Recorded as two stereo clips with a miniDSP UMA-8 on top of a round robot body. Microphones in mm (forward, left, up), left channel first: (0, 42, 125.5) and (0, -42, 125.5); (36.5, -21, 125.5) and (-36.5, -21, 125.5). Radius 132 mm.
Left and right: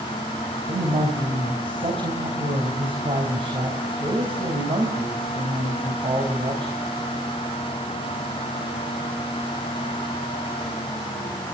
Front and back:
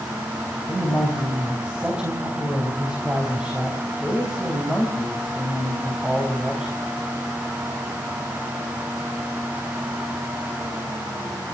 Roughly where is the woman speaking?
Right.